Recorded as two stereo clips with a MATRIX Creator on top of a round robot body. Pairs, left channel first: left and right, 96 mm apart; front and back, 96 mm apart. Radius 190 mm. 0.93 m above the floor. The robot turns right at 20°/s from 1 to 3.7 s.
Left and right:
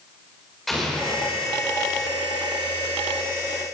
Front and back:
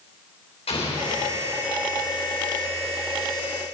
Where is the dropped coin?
No dropped coin in this recording.